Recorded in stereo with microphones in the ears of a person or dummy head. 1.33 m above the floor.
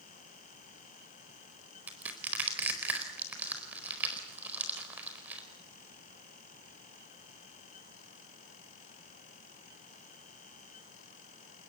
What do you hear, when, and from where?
1.9 s crushing: 10° right (ahead or behind), 4 m